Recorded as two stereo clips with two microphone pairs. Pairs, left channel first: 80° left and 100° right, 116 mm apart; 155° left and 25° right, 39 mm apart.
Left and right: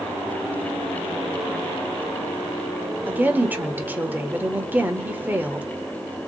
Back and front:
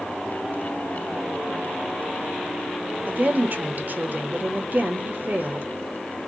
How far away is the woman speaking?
About 1.1 m.